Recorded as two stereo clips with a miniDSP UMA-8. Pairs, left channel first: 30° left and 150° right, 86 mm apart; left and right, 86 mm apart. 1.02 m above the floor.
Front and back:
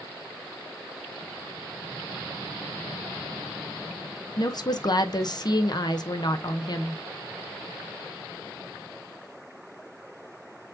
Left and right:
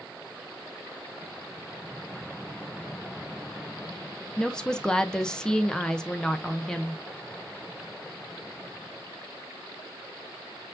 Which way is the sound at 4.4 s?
10° left.